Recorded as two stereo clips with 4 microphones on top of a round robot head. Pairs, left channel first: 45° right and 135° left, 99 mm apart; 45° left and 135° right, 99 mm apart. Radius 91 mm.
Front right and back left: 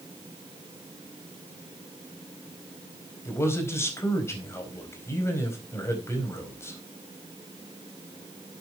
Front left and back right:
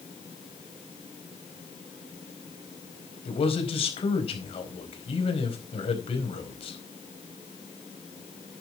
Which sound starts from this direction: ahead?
A man speaking, at 3.2 s.